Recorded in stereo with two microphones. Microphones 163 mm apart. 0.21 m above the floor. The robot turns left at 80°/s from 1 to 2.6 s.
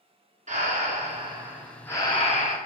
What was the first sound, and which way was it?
Breathing, 125° right.